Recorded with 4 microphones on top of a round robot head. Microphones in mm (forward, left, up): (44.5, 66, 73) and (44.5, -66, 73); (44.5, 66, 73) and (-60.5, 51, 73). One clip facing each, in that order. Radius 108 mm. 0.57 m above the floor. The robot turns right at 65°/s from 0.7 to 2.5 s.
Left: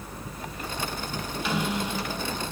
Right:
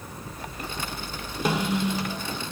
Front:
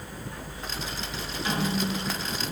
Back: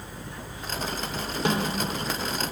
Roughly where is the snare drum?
Behind right.